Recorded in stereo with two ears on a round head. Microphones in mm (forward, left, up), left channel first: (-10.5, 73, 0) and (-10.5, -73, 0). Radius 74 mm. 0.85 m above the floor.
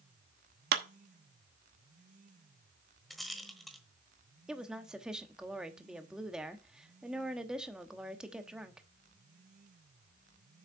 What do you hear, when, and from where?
0.7 s a clap: 70° right (ahead or behind), 1.0 m
3.1 s a rattle: centre (ahead or behind), 1.2 m
4.5 s a woman speaking: 5° right (ahead or behind), 1.1 m